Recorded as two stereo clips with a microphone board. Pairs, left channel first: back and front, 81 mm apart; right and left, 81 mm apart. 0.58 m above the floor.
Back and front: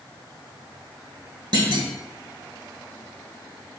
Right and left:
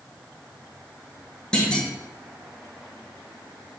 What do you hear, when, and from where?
1.5 s a clunk: 10° right, 1.9 m